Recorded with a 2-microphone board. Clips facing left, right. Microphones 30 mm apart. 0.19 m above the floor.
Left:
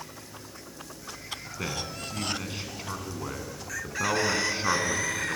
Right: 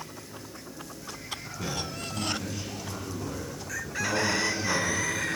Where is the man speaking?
45° left (ahead or behind), 1.8 m.